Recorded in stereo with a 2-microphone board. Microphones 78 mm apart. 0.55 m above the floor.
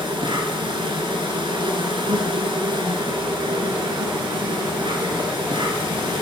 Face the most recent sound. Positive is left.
turn(degrees=-80)